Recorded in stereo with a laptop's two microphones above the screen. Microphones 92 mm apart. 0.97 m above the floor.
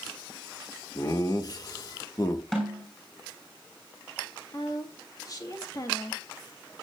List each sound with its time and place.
0.9 s laughter: 40° left (ahead or behind), 1.3 m
2.5 s a snare drum: 5° left (ahead or behind), 6.5 m
4.5 s a woman speaking: 40° left (ahead or behind), 1.9 m